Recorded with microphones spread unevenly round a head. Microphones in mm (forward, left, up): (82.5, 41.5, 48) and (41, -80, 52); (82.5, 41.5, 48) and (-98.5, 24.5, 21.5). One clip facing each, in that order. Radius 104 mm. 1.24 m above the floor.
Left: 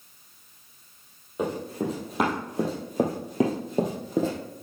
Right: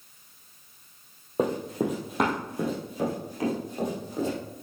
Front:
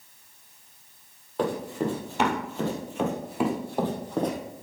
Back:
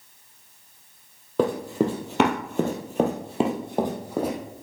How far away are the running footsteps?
About 2.5 m.